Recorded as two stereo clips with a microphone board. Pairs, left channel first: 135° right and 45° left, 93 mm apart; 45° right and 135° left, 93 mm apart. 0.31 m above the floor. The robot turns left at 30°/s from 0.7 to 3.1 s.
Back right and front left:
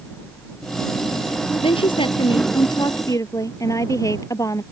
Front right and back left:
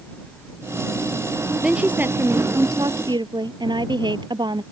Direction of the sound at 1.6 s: 145° right.